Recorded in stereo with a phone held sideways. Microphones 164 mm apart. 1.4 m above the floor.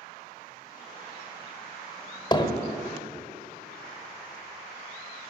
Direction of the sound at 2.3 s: 25° left (ahead or behind).